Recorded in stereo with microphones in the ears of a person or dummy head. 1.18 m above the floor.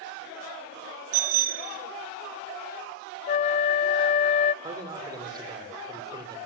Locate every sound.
1.1 s a bicycle bell: 75° right (ahead or behind), 3 m
3.3 s a flute: 30° left (ahead or behind), 0.7 m
4.6 s a man speaking: 20° right (ahead or behind), 4 m